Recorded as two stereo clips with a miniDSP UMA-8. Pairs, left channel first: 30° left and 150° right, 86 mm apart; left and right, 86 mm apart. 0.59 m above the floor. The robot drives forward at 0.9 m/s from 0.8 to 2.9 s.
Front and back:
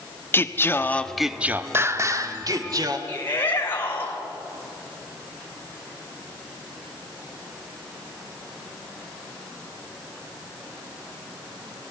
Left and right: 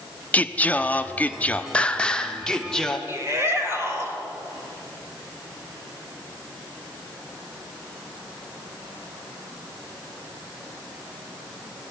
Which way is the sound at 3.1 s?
35° right.